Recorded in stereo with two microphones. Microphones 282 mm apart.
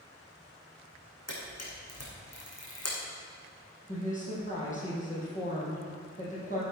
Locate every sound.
1.3 s a camera shutter: 60° left (ahead or behind), 3 m
3.9 s a woman speaking: 25° left (ahead or behind), 4 m